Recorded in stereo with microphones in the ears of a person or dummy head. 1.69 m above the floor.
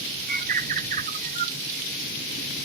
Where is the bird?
50° right (ahead or behind).